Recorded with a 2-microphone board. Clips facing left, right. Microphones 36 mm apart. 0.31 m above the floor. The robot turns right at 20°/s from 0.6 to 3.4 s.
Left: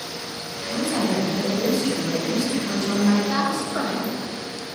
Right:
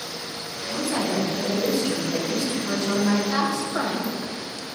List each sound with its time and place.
0.7 s a woman speaking: 15° left (ahead or behind), 1.5 m; by 3.2 s 5° right (ahead or behind), 1.5 m
3.3 s a woman speaking: 10° left (ahead or behind), 1.2 m; by 4.8 s 5° left (ahead or behind), 1.2 m